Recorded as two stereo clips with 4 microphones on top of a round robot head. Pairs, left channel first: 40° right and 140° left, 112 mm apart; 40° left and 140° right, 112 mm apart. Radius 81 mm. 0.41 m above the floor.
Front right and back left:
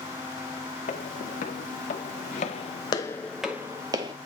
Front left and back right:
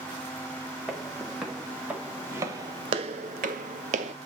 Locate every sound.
0.9 s footsteps: 45° right, 1.4 m; by 4.1 s 170° right, 0.8 m